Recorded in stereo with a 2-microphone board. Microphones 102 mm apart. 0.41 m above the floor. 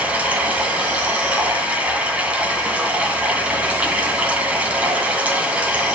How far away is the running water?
About 2 m.